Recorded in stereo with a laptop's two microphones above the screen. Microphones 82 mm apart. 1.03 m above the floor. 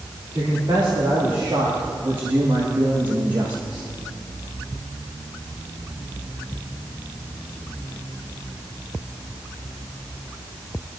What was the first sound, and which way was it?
A man speaking, 70° right (ahead or behind).